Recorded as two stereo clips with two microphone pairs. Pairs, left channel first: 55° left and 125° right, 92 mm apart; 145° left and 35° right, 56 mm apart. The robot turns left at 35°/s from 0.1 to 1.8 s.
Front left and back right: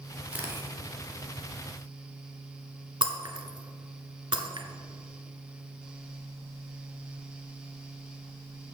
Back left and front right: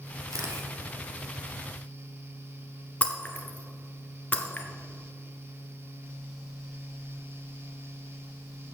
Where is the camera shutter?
50° right, 2 m; by 0.7 s 65° right, 2 m.